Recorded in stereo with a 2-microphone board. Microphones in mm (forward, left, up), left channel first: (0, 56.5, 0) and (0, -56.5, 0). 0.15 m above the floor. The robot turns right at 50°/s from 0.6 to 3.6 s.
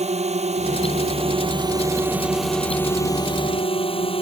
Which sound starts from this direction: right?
A drone, at 0.0 s.